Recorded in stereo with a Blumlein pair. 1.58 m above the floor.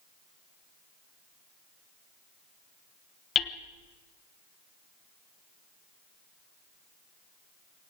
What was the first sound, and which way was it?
Hammering, 25° left.